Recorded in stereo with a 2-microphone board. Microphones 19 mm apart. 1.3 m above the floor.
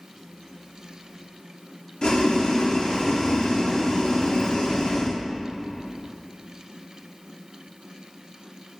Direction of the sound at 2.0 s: 55° left (ahead or behind).